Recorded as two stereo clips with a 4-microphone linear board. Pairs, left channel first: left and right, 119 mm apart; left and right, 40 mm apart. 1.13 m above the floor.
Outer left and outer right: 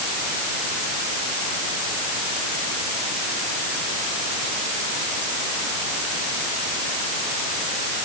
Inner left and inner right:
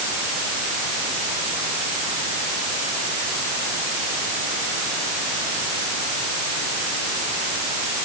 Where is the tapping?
No tapping in this recording.